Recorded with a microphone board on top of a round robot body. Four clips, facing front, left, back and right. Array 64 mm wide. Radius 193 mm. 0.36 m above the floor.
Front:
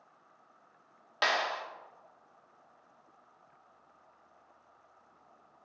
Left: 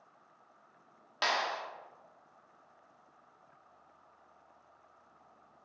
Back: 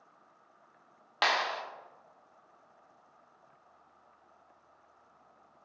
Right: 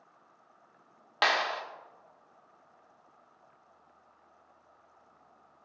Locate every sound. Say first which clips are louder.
1.2 s a clap: right 5 dB, back 1 dB; 120° right, 1.3 m